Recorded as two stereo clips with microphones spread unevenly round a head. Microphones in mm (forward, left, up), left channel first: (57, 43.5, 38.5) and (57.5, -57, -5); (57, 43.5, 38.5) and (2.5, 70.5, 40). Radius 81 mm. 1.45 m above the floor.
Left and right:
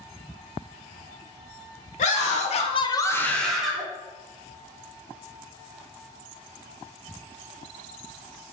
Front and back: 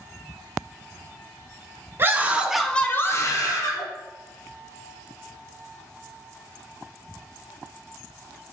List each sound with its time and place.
2.0 s a scream: 100° left, 0.8 m; by 3.9 s 10° right, 1.0 m